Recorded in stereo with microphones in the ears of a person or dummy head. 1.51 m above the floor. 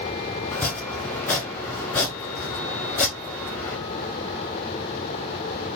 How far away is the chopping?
About 1.1 m.